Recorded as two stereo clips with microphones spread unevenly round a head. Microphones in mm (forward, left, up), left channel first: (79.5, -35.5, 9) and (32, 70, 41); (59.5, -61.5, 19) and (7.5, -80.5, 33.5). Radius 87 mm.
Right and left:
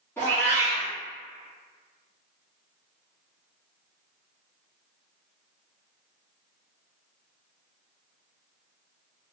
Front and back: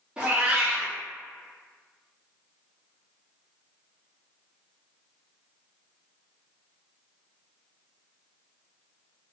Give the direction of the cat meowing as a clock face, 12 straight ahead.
5 o'clock.